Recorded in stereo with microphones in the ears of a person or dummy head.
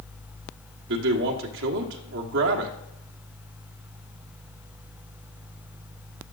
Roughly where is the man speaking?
Right.